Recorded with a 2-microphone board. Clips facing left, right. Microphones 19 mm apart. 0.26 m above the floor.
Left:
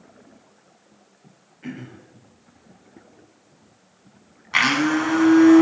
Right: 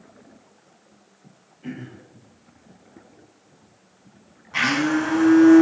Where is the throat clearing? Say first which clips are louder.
Even; 40° left (ahead or behind), 1.5 m.